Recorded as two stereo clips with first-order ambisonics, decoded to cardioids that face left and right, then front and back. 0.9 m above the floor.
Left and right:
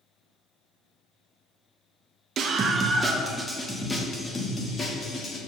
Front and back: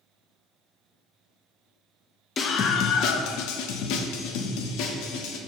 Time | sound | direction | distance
2.4 | a scream | 55° right | 0.6 m